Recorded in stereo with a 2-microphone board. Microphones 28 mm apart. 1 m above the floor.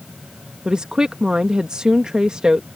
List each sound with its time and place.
0.7 s a woman speaking: 30° right (ahead or behind)